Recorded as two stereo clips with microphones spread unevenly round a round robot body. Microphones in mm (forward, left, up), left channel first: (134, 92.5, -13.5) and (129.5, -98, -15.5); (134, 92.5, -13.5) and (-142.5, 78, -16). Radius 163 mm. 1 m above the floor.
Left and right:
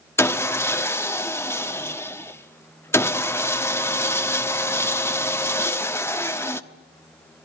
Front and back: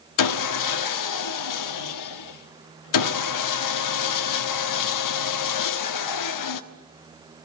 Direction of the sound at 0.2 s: 10° left.